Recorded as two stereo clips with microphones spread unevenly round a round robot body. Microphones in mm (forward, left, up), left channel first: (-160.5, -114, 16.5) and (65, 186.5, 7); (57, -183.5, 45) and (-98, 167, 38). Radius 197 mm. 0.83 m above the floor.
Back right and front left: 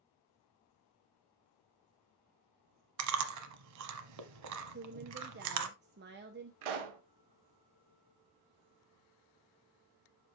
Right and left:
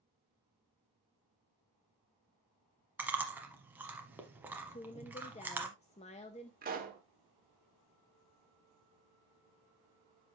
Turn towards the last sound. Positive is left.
turn(degrees=45)